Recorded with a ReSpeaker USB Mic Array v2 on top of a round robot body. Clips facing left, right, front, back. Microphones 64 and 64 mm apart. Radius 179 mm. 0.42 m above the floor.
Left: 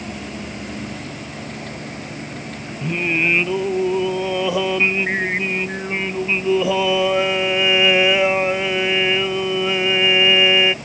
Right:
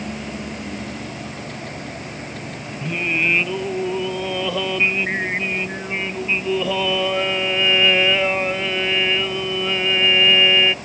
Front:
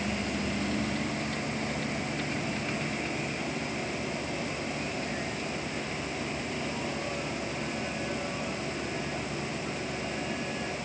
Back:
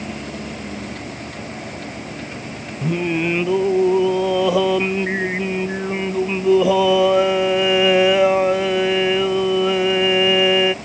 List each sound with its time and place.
2.8 s singing: 170° left